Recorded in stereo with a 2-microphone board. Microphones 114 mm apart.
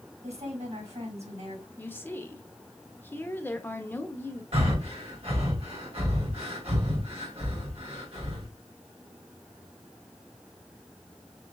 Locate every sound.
0.2 s a woman speaking: 70° right (ahead or behind), 3.5 m
1.8 s a woman speaking: 20° left (ahead or behind), 0.9 m
4.5 s breathing: 60° right (ahead or behind), 3 m